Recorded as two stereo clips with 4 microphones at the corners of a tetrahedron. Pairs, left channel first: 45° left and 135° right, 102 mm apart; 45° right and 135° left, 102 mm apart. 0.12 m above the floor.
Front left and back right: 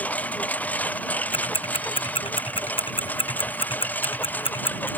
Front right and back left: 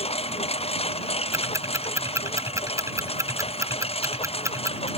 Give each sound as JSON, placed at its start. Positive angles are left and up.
{"t": 0.0, "sound": "a lawn mower", "azimuth_deg": -30}
{"t": 1.3, "sound": "ticking", "azimuth_deg": 75}